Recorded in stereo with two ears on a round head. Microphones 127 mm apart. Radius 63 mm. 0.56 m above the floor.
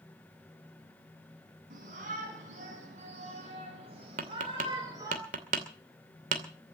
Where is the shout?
60° right (ahead or behind), 6.5 m; by 5.2 s 25° right (ahead or behind), 3 m.